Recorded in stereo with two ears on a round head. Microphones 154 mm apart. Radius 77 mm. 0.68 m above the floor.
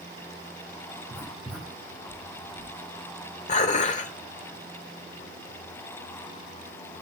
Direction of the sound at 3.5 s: 45° left (ahead or behind).